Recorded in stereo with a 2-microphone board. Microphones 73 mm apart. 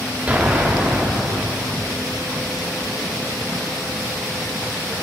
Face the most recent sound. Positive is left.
turn(degrees=-20)  # may be behind; listen again after turning